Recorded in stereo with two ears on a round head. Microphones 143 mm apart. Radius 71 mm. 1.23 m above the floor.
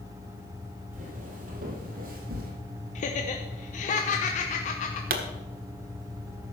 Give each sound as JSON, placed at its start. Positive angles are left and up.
{"t": 0.9, "sound": "footsteps", "side_deg": -50, "distance_m": 2.5}
{"t": 3.0, "sound": "laughter", "side_deg": 50, "distance_m": 0.9}
{"t": 5.1, "sound": "a pop", "side_deg": -60, "distance_m": 1.3}